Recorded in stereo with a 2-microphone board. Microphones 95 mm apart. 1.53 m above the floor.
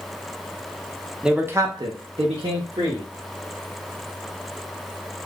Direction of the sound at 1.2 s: 5° right (ahead or behind).